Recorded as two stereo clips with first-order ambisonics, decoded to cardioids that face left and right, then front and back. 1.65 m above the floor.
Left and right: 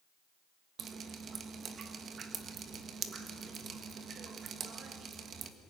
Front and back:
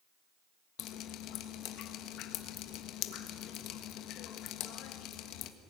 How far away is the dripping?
About 1.4 m.